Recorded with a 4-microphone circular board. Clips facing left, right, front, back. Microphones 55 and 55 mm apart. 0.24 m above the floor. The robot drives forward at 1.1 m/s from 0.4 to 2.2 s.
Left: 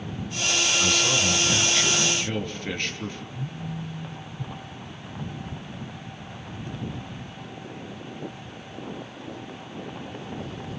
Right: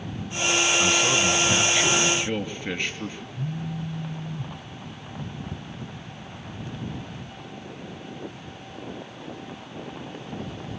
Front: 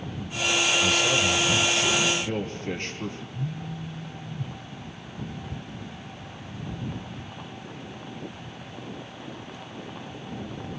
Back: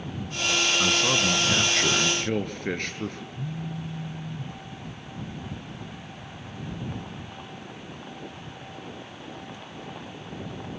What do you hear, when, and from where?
0.8 s a man speaking: 160° right, 2.0 m; by 3.2 s 170° right, 3.5 m
3.3 s a phone buzzing: 100° right, 0.9 m
5.5 s ticking: 110° right, 1.8 m